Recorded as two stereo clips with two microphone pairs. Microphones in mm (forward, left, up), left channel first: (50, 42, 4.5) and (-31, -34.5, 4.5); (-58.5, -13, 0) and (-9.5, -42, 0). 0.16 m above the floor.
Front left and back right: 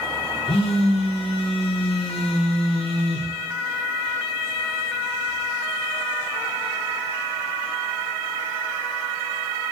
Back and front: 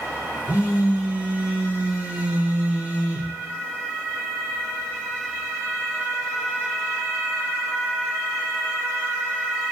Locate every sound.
0.5 s a phone buzzing: 30° left, 0.7 m